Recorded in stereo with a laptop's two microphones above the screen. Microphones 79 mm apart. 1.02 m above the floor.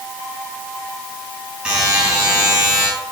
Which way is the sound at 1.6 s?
15° right (ahead or behind).